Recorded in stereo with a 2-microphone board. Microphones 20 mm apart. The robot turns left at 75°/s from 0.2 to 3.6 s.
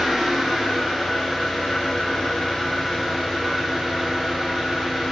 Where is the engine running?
130° right, 1.8 m; by 5.1 s 25° right, 1.8 m.